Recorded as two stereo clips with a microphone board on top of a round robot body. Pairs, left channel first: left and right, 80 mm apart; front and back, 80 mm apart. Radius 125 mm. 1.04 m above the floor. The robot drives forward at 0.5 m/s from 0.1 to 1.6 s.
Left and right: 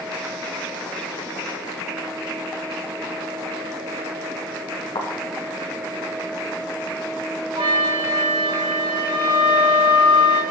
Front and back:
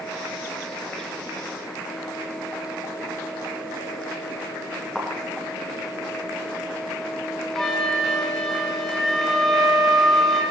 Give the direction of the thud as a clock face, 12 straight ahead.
9 o'clock.